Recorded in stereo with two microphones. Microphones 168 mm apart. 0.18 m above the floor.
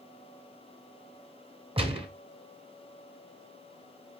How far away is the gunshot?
About 0.9 m.